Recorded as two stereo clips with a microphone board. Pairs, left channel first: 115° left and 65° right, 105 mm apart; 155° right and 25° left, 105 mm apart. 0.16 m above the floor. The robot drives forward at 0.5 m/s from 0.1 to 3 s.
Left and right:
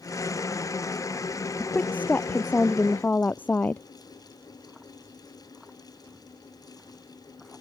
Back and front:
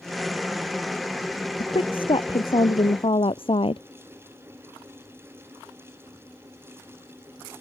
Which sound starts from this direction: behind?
A woman speaking, at 1.6 s.